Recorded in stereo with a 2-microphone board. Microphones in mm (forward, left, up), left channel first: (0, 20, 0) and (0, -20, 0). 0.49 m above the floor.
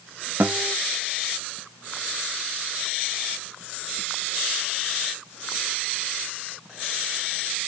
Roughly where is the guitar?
Right.